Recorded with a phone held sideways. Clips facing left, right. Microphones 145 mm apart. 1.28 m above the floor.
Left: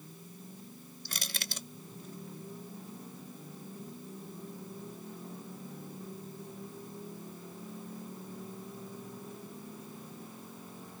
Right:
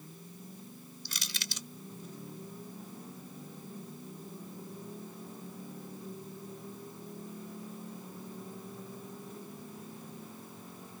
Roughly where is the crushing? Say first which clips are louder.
Left 3 dB; left.